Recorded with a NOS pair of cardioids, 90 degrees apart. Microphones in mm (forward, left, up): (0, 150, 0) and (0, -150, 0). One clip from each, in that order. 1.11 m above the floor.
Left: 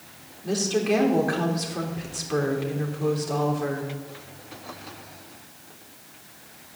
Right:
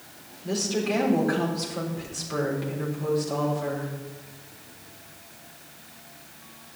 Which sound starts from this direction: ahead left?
A woman speaking, at 0.4 s.